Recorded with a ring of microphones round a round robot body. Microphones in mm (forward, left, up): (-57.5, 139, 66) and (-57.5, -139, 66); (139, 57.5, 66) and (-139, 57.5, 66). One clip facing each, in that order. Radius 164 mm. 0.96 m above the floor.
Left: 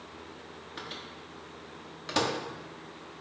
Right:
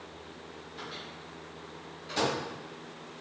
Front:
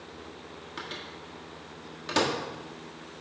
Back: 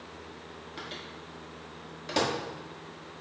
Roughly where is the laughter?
I don't hear laughter.